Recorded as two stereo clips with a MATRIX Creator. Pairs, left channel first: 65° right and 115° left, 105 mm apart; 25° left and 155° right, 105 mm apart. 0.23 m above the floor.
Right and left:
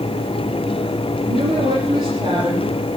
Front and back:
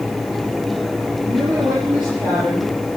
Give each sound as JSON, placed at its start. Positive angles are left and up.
{"t": 1.3, "sound": "a woman speaking", "azimuth_deg": 130, "distance_m": 9.0}